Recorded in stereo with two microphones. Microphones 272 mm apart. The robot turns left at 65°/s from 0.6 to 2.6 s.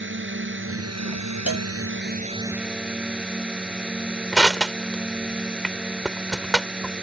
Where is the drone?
45° right; by 7.0 s 175° right.